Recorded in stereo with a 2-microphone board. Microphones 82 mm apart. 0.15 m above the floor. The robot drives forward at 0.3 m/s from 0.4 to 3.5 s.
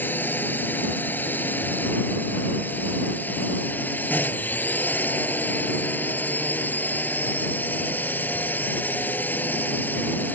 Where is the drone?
25° left (ahead or behind).